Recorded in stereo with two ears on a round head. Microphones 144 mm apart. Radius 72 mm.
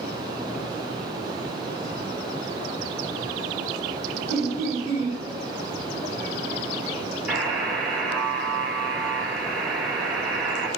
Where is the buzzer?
5° right (ahead or behind), 0.8 m.